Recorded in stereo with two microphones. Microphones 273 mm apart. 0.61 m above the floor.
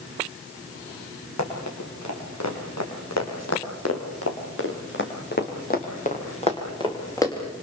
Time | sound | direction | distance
1.4 | running footsteps | 85° left | 7.5 m